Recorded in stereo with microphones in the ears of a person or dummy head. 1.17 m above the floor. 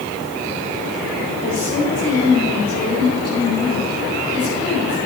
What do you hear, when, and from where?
1.4 s a woman speaking: 45° left (ahead or behind), 4 m; by 5.0 s 15° left (ahead or behind), 4 m